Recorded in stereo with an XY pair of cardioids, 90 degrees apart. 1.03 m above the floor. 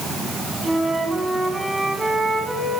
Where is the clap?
I don't hear a clap.